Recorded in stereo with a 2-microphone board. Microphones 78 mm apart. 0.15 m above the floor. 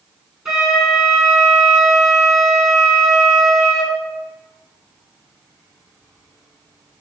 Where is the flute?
5° right (ahead or behind), 1.8 m.